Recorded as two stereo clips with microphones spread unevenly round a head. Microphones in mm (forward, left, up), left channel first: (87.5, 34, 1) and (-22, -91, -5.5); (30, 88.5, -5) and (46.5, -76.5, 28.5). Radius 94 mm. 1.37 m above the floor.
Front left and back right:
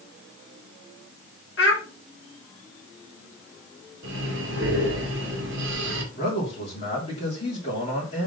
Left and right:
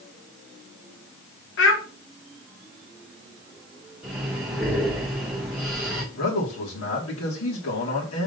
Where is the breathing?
170° right, 2.0 m.